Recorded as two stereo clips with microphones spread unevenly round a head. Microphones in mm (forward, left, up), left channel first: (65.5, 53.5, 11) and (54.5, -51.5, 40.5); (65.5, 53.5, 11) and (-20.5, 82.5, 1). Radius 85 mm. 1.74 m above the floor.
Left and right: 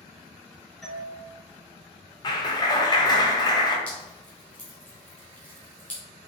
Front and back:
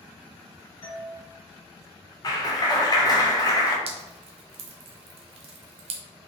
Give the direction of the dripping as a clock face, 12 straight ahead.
6 o'clock.